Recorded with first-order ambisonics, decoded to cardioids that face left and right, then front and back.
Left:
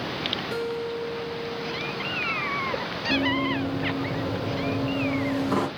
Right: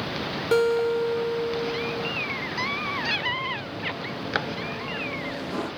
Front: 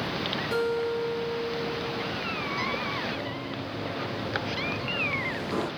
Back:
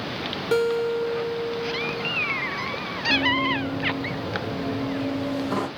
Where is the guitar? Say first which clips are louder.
Right 8 dB, back 7 dB; 130° right, 1.4 m.